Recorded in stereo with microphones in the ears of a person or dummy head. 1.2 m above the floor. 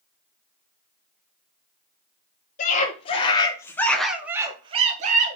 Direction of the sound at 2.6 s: 40° left (ahead or behind).